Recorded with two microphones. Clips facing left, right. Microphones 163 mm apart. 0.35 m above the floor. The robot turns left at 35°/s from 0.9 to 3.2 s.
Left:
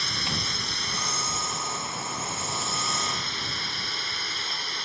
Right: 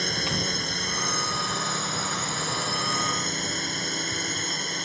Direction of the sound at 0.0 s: 50° right.